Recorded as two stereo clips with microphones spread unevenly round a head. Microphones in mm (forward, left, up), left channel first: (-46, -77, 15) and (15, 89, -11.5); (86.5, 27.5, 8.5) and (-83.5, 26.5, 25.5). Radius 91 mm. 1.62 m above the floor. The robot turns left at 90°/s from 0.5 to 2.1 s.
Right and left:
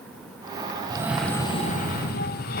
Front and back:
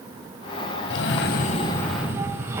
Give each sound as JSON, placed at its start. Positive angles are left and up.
{"t": 0.9, "sound": "a cough", "azimuth_deg": 0, "distance_m": 0.7}